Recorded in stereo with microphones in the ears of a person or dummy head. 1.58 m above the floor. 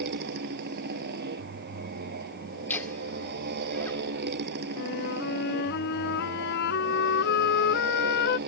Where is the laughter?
10° left (ahead or behind).